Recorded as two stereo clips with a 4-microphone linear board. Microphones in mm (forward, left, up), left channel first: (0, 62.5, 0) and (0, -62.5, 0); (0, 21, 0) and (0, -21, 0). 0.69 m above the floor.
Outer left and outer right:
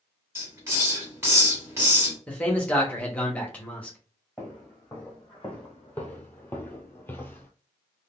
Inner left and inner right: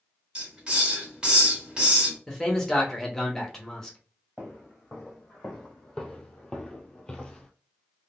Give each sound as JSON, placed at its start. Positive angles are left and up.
{"t": 0.3, "sound": "a hiss", "side_deg": -20, "distance_m": 1.6}
{"t": 2.3, "sound": "a man speaking", "side_deg": 10, "distance_m": 1.0}
{"t": 4.4, "sound": "footsteps", "side_deg": 5, "distance_m": 1.8}